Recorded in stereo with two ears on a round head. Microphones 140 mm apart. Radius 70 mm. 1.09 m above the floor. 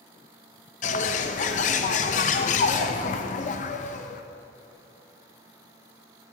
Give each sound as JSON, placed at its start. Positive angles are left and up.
{"t": 0.8, "sound": "a bird", "side_deg": 50, "distance_m": 0.6}